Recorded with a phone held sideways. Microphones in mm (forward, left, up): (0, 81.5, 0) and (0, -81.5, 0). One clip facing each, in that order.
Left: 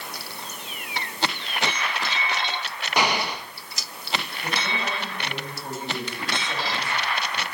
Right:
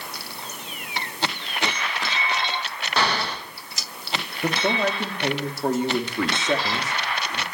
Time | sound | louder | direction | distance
3.0 | an explosion | left 1 dB | 15° left (ahead or behind) | 1.6 m
4.4 | a man speaking | right 10 dB | 80° right | 3 m